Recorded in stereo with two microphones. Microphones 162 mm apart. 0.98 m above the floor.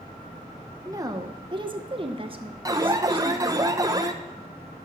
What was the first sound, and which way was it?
A woman speaking, 20° right (ahead or behind).